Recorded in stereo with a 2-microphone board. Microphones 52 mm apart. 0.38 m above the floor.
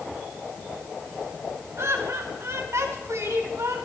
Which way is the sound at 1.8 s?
65° right (ahead or behind).